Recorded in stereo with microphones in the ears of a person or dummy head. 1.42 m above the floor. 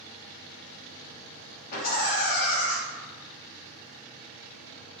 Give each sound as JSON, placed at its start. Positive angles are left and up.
{"t": 1.7, "sound": "laughter", "side_deg": 50, "distance_m": 1.2}